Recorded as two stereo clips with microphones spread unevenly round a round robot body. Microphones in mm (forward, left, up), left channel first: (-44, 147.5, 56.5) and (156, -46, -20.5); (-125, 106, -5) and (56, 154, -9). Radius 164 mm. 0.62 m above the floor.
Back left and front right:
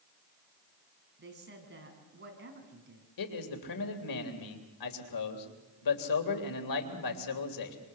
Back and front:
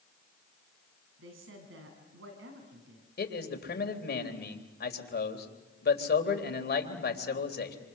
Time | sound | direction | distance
1.2 | a woman speaking | 5° left | 6 m
3.2 | a man speaking | 170° left | 3.5 m